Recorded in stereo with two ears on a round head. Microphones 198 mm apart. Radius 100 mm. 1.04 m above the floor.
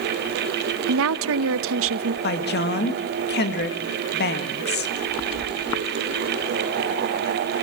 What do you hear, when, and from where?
0.9 s a woman speaking: 70° right (ahead or behind), 0.9 m
2.2 s a woman speaking: 50° left (ahead or behind), 1.9 m